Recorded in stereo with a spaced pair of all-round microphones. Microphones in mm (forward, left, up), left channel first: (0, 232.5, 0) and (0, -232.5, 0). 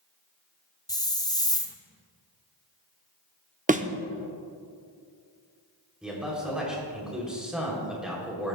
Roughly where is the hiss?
Centre.